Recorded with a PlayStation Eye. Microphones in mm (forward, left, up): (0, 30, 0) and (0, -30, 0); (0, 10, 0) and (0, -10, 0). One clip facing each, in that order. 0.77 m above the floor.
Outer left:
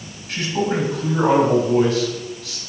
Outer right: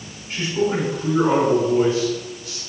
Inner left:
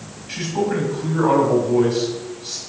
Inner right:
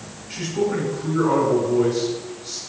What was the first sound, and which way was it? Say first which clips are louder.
A man speaking: even, inner left 1 dB; 85° left.